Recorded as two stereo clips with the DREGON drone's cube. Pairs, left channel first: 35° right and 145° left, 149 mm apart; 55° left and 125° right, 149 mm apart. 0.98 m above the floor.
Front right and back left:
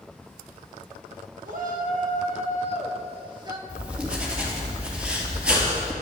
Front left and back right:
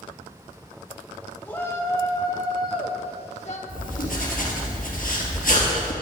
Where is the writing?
65° left, 3 m.